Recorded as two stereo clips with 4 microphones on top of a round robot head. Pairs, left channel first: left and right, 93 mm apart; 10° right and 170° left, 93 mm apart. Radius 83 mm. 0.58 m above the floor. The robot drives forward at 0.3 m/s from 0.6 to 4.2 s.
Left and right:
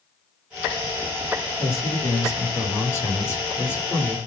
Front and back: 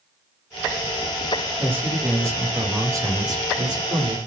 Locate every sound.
1.6 s a man speaking: 115° left, 1.1 m; by 4.2 s 150° left, 1.5 m